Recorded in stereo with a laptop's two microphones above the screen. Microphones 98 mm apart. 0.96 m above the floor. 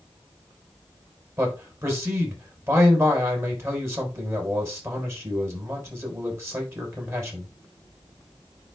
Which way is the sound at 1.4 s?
25° right (ahead or behind).